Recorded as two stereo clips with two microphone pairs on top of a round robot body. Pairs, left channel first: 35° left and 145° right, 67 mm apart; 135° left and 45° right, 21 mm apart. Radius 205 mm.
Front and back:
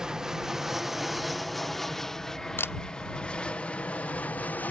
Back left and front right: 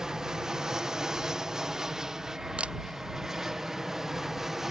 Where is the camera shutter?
20° right.